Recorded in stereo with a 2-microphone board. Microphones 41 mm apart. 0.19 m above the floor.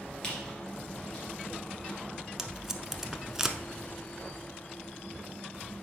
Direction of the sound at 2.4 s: 5° right (ahead or behind).